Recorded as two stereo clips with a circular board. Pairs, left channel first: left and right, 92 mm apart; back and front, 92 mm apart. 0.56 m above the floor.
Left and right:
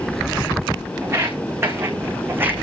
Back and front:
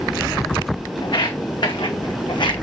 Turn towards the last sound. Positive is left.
turn(degrees=-155)